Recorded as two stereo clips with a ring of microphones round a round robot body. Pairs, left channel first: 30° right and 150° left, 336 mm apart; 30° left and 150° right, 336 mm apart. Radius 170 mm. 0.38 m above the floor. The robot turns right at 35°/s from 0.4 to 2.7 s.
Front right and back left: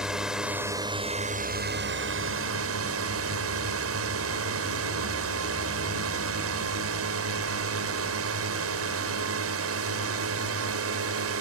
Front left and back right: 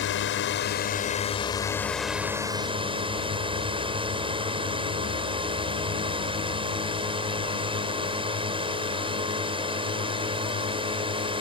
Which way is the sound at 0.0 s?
65° left.